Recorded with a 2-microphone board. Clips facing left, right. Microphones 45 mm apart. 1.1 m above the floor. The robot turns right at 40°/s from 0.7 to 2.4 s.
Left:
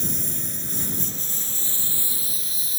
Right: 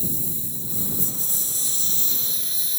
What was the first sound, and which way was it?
A lawn mower, 110° left.